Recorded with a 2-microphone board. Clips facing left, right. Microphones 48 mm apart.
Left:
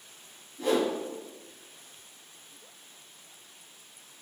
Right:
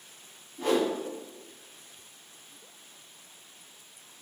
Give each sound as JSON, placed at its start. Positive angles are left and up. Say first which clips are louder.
{"t": 0.6, "sound": "a whoosh", "louder": "even", "side_deg": -50, "distance_m": 1.3}